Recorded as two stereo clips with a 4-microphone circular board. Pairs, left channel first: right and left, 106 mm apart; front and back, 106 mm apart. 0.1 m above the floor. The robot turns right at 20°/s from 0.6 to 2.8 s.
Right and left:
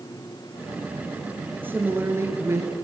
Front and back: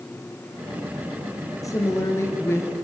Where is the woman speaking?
30° left, 2 m; by 2.7 s 50° left, 2 m.